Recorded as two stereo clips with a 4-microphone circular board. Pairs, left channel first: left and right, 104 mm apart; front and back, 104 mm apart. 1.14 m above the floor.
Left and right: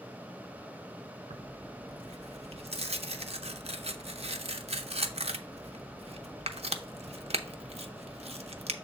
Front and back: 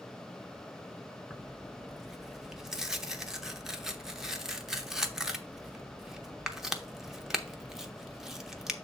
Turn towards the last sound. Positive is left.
turn(degrees=-95)